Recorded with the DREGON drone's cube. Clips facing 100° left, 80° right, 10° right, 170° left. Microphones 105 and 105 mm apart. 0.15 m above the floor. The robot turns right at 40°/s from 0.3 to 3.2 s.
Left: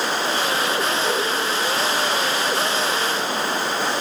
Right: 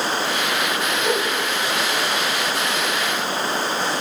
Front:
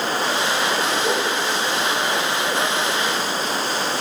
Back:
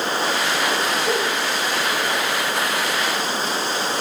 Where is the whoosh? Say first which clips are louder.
Right 1 dB, even; 5° right, 4.5 m; by 1.3 s 10° left, 4.5 m.